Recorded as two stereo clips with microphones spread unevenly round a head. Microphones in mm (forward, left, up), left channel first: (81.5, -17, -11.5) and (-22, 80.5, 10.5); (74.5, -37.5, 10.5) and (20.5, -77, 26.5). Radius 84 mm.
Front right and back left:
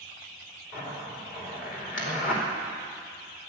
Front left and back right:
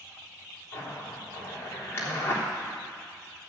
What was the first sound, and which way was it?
A zipper, 20° right.